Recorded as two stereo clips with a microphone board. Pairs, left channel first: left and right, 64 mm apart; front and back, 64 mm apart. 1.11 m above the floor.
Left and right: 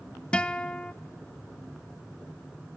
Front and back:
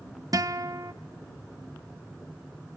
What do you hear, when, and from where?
0.3 s a guitar: 165° left, 0.6 m